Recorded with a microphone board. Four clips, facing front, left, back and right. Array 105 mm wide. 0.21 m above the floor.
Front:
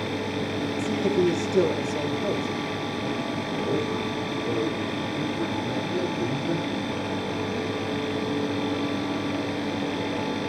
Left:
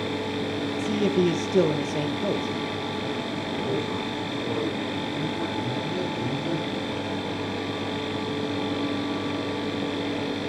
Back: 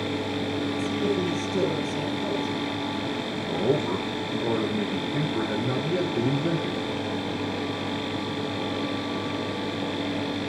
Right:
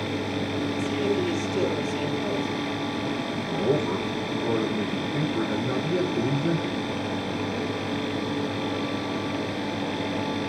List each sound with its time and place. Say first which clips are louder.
0.8 s a man speaking: left 4 dB, front 5 dB; 80° left, 5 m
3.4 s a man speaking: right 5 dB, back 5 dB; 160° right, 9 m